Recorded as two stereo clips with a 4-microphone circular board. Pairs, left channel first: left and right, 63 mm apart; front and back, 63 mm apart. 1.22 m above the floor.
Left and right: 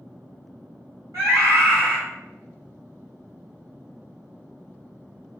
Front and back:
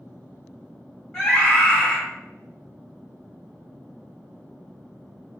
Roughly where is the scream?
Right.